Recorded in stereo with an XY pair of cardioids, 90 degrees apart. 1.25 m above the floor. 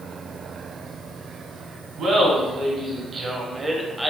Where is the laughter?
70° right, 1.5 m; by 4.1 s straight ahead, 0.6 m.